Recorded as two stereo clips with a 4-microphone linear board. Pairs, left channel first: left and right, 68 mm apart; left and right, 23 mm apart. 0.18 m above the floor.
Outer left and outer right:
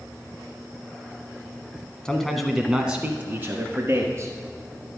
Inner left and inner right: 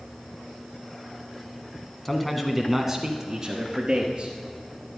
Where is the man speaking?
10° left (ahead or behind), 1.3 m; by 4.3 s 40° right (ahead or behind), 2 m.